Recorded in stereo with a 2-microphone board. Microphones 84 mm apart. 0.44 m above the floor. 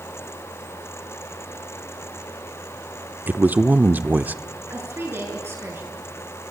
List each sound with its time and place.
3.3 s a man speaking: 20° right (ahead or behind), 0.7 m
4.7 s a woman speaking: 30° right (ahead or behind), 5.5 m